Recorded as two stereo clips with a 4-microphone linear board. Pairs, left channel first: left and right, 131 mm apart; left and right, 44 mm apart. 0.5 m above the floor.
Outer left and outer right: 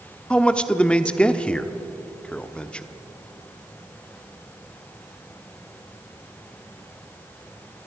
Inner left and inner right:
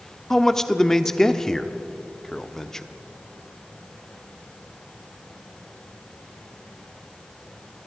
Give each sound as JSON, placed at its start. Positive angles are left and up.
{"t": 0.3, "sound": "a man speaking", "side_deg": 10, "distance_m": 0.9}